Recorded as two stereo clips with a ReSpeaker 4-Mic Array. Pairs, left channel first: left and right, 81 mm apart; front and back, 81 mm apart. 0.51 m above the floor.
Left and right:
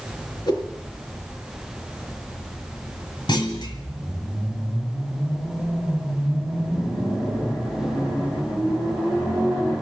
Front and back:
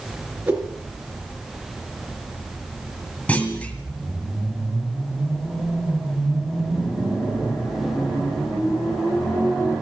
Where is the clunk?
75° left, 1.8 m.